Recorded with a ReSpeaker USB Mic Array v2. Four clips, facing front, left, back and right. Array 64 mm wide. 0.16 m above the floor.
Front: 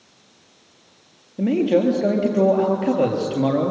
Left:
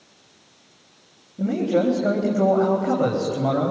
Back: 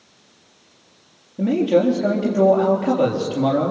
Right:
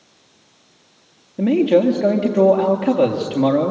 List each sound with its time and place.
1.4 s a man speaking: 80° right, 3.5 m